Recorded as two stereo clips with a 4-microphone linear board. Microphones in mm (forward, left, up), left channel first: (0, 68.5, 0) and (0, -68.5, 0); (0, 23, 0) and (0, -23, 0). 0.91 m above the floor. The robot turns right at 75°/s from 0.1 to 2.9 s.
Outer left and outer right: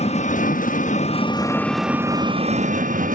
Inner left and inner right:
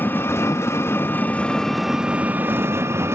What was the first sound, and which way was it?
An engine running, 55° left.